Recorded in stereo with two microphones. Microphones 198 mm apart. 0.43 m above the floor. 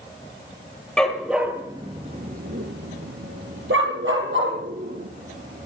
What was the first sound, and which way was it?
A dog barking, 5° left (ahead or behind).